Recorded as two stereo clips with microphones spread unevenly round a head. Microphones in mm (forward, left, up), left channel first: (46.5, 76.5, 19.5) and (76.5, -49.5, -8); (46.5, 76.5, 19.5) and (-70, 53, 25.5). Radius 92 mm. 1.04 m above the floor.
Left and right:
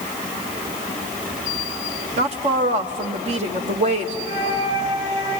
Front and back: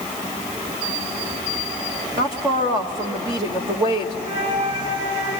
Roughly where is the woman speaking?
Right.